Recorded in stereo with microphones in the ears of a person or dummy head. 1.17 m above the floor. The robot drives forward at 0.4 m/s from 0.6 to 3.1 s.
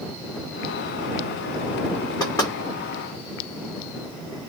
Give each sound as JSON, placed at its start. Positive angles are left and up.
{"t": 2.2, "sound": "knocking", "side_deg": 15, "distance_m": 1.6}